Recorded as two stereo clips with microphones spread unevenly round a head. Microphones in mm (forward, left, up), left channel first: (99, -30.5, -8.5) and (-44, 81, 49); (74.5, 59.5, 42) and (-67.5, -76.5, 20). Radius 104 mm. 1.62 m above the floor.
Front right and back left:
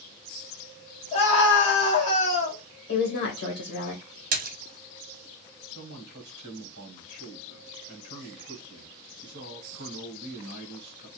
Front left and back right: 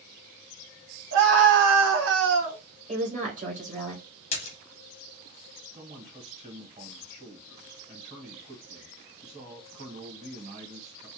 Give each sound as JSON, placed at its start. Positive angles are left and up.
{"t": 1.1, "sound": "a scream", "azimuth_deg": -105, "distance_m": 0.9}
{"t": 2.9, "sound": "a woman speaking", "azimuth_deg": -80, "distance_m": 1.2}
{"t": 4.3, "sound": "a splash", "azimuth_deg": 105, "distance_m": 0.6}
{"t": 5.8, "sound": "a man speaking", "azimuth_deg": 165, "distance_m": 1.3}